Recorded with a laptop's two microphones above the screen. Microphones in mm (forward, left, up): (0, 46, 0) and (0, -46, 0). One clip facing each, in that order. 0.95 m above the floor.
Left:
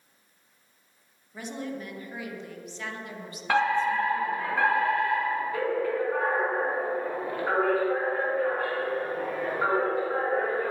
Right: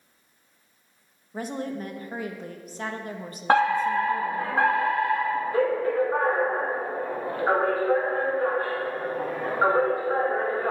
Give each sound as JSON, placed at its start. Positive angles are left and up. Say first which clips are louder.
{"t": 1.3, "sound": "a woman speaking", "louder": "right 4 dB", "side_deg": -40, "distance_m": 1.1}
{"t": 3.5, "sound": "a fire alarm", "louder": "right 3 dB", "side_deg": -35, "distance_m": 2.5}